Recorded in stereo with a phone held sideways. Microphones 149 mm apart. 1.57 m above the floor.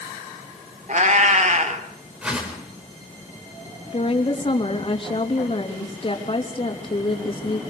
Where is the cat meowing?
55° right (ahead or behind), 1.9 m.